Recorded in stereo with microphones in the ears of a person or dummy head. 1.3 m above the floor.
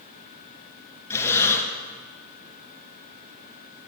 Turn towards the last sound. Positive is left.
turn(degrees=15)  # may be behind; listen again after turning